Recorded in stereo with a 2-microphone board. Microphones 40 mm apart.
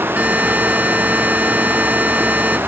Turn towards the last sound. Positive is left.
turn(degrees=-50)  # may be behind; listen again after turning